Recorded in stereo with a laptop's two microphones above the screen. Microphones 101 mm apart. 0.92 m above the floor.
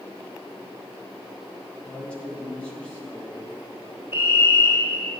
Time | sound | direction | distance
1.8 | a man speaking | 10° left (ahead or behind) | 1.4 m
4.1 | a fire alarm | 25° right (ahead or behind) | 1.6 m